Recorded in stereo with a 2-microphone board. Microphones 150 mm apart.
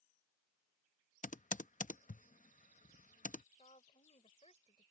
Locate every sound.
1.2 s typing on a keyboard: 60° left (ahead or behind)
3.6 s a woman speaking: 45° left (ahead or behind)